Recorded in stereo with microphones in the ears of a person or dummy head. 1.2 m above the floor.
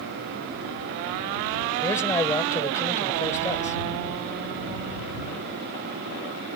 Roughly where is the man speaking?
Centre.